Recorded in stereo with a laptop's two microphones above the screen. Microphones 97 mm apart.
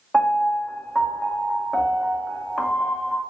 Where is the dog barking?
No dog barking in this recording.